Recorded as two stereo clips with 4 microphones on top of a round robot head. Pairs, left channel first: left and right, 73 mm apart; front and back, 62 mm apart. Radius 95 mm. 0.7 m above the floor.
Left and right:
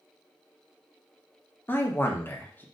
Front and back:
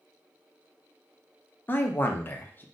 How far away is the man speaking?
About 0.7 m.